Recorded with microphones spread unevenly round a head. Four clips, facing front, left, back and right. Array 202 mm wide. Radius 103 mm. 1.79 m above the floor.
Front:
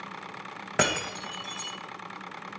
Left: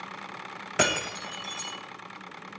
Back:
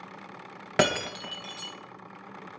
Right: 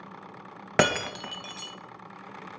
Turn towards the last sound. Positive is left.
turn(degrees=-65)